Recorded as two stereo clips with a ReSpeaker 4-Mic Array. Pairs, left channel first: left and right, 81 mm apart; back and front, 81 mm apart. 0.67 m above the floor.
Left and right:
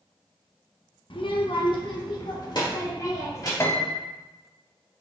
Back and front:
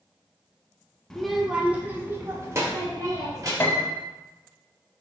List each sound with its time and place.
1.1 s a child speaking: 95° left, 0.7 m; by 3.5 s 45° left, 1.8 m
3.6 s a piano: 135° left, 0.6 m